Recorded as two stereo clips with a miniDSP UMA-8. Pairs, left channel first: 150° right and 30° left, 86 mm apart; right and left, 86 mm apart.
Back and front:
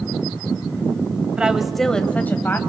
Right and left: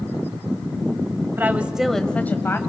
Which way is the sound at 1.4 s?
90° left.